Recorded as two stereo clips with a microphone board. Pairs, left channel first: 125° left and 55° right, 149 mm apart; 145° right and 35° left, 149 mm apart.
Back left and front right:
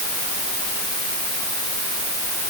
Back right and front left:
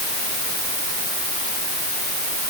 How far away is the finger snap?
No finger snap in this recording.